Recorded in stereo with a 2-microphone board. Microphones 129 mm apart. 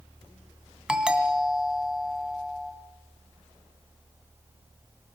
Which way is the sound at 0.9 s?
10° right (ahead or behind).